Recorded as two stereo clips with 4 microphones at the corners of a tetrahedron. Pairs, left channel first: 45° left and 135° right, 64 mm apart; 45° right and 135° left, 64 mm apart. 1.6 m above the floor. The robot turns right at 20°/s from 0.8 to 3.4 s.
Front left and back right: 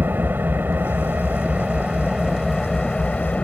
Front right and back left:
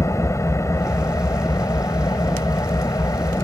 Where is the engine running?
80° right; by 3.4 s 25° right.